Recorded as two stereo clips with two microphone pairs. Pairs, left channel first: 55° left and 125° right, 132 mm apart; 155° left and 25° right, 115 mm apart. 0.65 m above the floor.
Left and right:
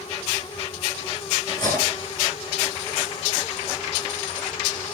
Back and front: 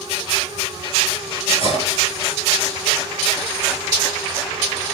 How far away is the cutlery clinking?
About 5 m.